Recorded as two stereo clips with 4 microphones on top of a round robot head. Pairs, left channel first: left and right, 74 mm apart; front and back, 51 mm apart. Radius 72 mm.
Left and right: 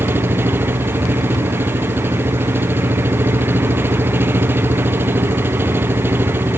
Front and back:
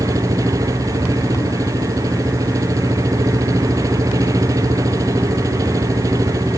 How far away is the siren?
I don't hear a siren.